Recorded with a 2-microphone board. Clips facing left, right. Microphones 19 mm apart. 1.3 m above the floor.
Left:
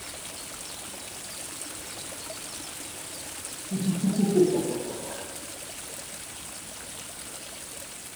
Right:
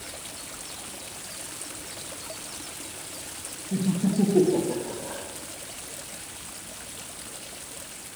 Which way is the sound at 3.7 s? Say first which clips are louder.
Right 2 dB; 50° right (ahead or behind).